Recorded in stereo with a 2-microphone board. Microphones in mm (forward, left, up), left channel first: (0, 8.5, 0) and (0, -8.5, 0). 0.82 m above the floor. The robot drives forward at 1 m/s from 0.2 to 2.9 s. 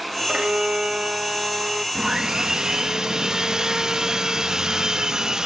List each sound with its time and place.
0.3 s a violin: 70° right (ahead or behind); by 1.9 s 30° right (ahead or behind)
1.9 s sawing: 35° right (ahead or behind); by 5.5 s 40° right (ahead or behind)